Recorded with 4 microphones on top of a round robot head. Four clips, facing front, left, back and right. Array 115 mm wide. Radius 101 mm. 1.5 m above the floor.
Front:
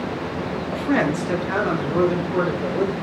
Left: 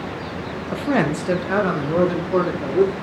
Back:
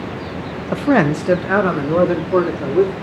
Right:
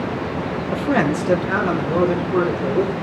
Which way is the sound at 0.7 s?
Straight behind.